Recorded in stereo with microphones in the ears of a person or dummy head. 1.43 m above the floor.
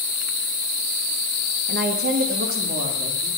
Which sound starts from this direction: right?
A woman speaking, at 1.7 s.